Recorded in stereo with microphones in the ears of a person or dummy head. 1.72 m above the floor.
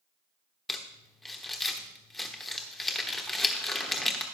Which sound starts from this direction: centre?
Crumpling, at 0.7 s.